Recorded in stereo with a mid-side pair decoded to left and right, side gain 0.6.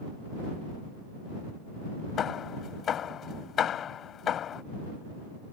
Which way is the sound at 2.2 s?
45° left.